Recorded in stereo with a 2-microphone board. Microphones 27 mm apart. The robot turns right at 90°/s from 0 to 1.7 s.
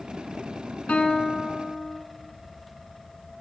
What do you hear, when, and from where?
0.9 s a guitar: 55° left, 3.5 m; by 2.0 s 125° left, 3.5 m